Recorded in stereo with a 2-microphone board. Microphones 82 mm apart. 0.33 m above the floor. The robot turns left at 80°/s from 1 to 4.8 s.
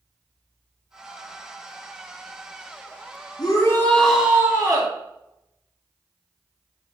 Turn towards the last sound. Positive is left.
turn(degrees=-55)